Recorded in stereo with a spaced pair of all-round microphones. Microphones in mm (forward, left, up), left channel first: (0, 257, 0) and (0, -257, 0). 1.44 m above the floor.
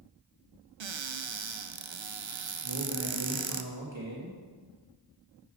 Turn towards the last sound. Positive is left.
turn(degrees=-60)  # may be behind; listen again after turning